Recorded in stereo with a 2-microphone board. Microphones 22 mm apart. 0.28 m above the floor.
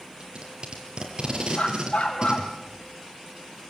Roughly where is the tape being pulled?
Right.